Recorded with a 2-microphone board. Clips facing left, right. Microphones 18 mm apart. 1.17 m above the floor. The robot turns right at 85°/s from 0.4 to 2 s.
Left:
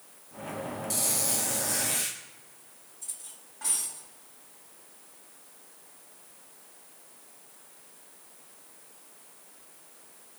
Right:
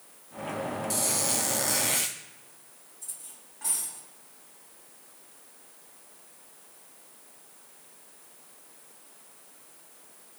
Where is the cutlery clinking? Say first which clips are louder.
Left 1 dB; 15° left (ahead or behind), 5 m.